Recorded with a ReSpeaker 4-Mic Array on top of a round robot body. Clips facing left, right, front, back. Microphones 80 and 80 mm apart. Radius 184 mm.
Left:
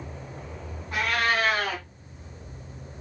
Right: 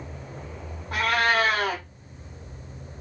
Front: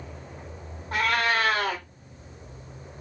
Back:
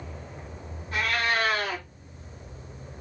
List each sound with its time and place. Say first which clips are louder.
0.9 s a cat meowing: right 3 dB, front 2 dB; 50° right, 0.7 m